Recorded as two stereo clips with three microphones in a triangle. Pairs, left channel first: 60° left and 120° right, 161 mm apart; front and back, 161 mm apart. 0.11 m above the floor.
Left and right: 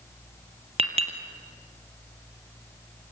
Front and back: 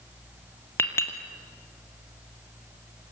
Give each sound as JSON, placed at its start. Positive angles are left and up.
{"t": 0.8, "sound": "a clink", "azimuth_deg": -75, "distance_m": 2.5}